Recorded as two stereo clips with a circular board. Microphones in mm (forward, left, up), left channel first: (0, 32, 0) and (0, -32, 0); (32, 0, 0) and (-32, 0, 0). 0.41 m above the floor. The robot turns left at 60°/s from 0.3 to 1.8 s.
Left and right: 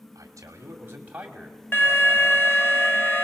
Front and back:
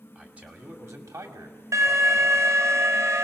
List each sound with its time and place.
0.1 s a man speaking: 110° right, 2.5 m; by 2.5 s 160° left, 2.5 m
1.7 s an alarm: 145° left, 2 m; by 3.2 s 140° left, 2 m